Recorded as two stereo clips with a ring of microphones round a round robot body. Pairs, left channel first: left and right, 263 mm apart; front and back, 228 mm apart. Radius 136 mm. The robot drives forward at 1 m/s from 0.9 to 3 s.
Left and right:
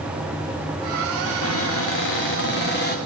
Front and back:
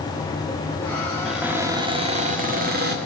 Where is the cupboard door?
90° left, 1.7 m; by 3.0 s 140° left, 2.5 m.